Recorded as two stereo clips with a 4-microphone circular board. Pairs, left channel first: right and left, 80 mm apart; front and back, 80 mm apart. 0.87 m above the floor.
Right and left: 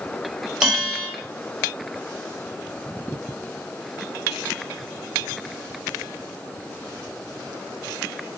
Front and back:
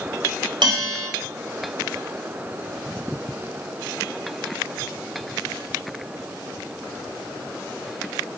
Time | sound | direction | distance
0.6 | a bell | 175° left | 1.2 m